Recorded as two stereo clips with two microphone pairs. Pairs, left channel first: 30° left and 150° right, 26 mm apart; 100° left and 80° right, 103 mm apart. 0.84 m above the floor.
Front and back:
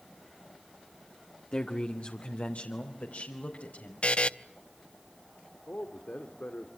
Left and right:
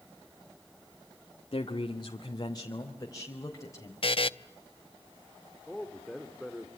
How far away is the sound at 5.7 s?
About 2 m.